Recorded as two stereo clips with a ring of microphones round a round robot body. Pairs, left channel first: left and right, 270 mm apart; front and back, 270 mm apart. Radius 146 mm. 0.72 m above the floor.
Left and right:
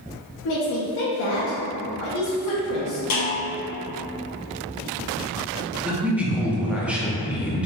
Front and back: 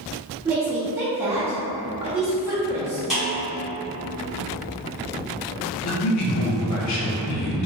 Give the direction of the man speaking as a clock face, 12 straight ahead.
12 o'clock.